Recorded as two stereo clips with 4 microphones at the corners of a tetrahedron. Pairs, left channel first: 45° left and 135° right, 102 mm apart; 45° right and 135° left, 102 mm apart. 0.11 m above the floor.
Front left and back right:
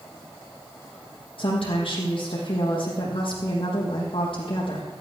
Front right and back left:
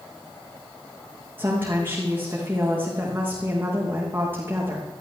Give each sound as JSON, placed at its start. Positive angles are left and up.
{"t": 1.4, "sound": "a woman speaking", "azimuth_deg": 65, "distance_m": 4.5}